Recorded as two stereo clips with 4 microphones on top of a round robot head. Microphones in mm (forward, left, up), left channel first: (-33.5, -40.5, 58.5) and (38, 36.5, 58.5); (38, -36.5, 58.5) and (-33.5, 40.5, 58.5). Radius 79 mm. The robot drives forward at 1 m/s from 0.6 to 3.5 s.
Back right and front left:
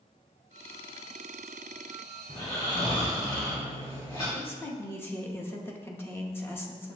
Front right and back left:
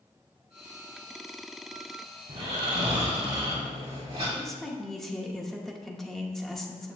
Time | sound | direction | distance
2.3 | snoring | 175° left | 1.6 m
4.3 | a woman speaking | 125° right | 0.9 m